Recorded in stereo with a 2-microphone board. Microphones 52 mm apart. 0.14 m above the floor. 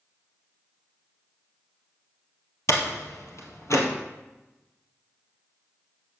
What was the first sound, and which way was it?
A door slam, 70° left (ahead or behind).